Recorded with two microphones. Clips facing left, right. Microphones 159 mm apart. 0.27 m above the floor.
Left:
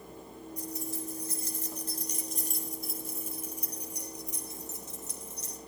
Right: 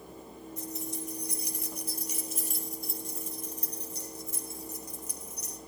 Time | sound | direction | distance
0.6 | keys jangling | 25° right (ahead or behind) | 4.5 m